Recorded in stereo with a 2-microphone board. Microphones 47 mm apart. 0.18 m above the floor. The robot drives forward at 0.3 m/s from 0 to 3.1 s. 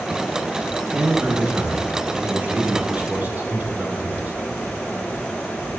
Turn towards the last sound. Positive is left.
turn(degrees=-40)  # may be behind; listen again after turning